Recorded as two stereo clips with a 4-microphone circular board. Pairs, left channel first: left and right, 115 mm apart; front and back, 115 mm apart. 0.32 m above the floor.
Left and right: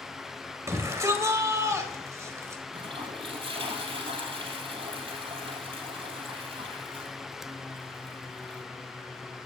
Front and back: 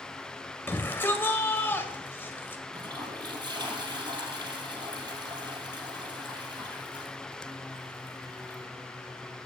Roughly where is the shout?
Ahead right.